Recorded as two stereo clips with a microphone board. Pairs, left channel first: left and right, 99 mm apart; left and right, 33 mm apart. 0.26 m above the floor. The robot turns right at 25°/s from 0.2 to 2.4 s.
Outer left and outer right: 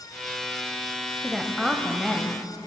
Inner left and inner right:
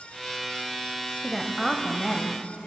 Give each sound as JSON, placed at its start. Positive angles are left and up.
{"t": 1.2, "sound": "a woman speaking", "side_deg": -5, "distance_m": 0.9}